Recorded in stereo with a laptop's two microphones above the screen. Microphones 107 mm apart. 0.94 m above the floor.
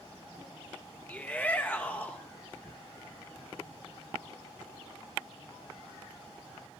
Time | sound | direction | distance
1.1 | a shout | 15° left (ahead or behind) | 0.7 m